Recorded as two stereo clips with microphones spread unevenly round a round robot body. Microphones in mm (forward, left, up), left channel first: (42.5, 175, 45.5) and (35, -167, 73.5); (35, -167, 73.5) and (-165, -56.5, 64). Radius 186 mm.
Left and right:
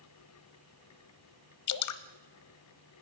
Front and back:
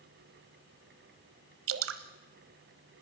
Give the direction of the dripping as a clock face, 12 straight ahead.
8 o'clock.